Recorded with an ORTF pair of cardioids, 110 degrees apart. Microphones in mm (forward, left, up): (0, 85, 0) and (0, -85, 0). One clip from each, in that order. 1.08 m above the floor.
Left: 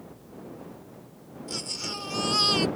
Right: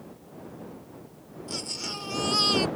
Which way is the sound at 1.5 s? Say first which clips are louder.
Even; 5° left.